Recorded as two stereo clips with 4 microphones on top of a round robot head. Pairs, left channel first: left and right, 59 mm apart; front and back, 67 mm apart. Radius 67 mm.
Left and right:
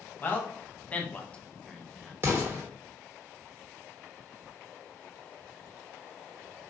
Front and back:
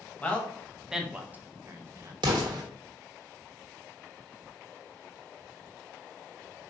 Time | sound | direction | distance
0.2 | a man speaking | 55° left | 0.9 m
2.2 | an explosion | 155° right | 0.8 m